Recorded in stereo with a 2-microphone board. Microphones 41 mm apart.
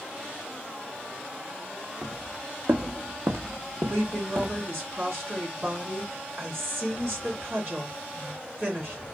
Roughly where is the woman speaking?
Right.